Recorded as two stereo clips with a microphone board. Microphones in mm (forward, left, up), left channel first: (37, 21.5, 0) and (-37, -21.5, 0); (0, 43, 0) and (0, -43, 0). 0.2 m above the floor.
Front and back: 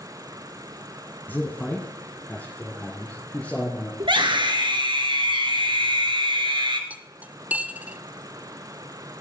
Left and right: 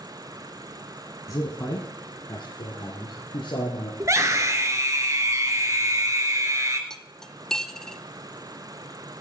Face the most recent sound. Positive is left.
turn(degrees=165)